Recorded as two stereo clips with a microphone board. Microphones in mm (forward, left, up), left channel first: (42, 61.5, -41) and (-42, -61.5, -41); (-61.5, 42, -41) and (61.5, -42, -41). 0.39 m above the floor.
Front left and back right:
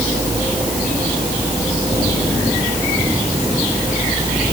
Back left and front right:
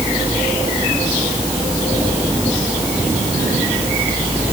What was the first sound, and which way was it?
Only background noise.